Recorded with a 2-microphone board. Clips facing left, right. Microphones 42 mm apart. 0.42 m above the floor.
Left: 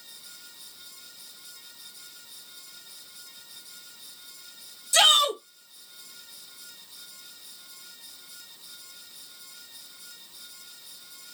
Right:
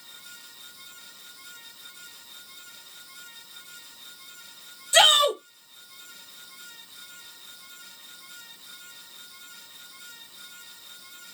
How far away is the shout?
About 1.2 m.